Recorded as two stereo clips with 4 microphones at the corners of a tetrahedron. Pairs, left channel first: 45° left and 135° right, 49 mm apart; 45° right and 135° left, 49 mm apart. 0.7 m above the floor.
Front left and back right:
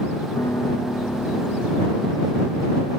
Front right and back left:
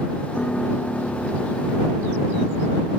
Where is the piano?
25° left.